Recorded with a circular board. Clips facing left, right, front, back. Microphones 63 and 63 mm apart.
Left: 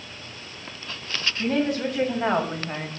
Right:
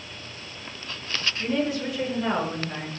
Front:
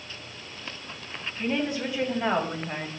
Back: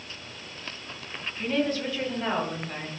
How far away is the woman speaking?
About 3 m.